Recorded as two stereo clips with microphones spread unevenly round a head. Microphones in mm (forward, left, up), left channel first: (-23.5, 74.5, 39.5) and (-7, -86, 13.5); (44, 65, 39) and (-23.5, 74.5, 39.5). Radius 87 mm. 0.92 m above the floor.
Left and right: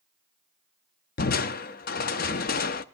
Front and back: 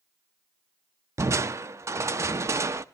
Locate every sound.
1.2 s crushing: 125° left, 0.6 m